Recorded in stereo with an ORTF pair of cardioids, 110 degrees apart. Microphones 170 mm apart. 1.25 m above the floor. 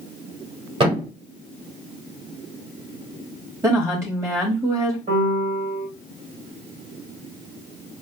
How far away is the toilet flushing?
No toilet flushing in this recording.